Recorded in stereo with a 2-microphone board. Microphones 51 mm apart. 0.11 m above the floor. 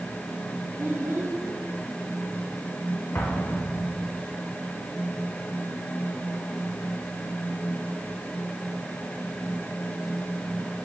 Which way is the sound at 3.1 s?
45° left (ahead or behind).